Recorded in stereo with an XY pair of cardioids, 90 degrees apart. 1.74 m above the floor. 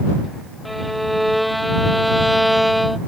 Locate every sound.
0.7 s a violin: straight ahead